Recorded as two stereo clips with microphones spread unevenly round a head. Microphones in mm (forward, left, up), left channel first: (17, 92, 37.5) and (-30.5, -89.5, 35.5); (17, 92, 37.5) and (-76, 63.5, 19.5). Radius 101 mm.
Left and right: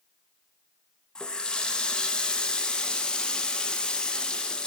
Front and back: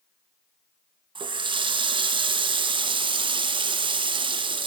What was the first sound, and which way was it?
A running tap, 160° left.